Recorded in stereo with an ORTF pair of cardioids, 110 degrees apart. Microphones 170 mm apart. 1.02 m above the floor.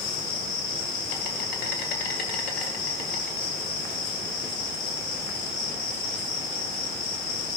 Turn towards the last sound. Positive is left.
turn(degrees=65)